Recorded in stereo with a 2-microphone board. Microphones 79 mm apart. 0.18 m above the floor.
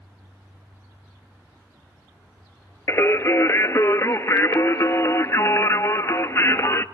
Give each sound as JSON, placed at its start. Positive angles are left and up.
{"t": 2.9, "sound": "singing", "side_deg": 35, "distance_m": 0.7}